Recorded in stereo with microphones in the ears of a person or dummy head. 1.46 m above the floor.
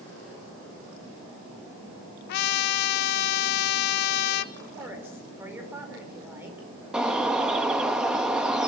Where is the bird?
5° right (ahead or behind), 1.6 m.